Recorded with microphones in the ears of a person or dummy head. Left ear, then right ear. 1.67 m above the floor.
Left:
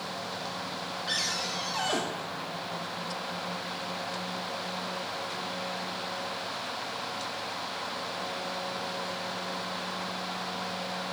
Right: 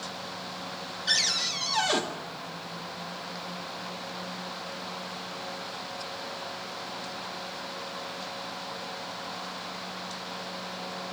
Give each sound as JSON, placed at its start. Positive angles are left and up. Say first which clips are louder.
{"t": 1.1, "sound": "a cupboard door", "louder": "right 5 dB", "side_deg": -30, "distance_m": 0.8}